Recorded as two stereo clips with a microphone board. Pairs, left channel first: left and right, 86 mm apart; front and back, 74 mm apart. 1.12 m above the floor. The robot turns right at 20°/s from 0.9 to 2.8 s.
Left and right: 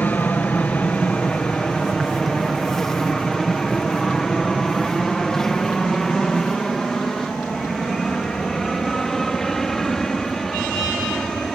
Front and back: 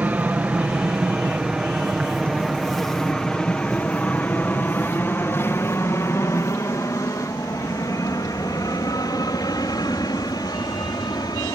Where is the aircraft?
135° left; by 11.6 s 5° left.